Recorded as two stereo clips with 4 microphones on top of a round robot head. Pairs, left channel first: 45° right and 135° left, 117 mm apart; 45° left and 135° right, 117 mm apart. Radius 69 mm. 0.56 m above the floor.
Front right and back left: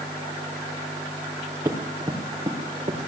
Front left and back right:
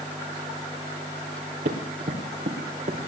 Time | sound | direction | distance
1.6 | running footsteps | 155° right | 4.5 m